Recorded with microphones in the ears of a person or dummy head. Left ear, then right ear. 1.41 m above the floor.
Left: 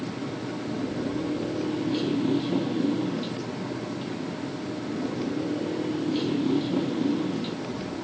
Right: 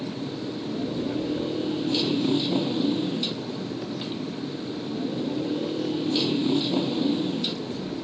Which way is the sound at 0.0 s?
30° right (ahead or behind).